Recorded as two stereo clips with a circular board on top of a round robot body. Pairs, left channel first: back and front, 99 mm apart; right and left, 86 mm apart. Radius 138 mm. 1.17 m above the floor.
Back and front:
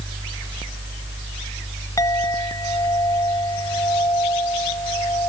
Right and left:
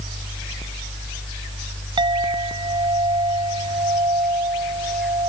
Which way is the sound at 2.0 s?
120° left.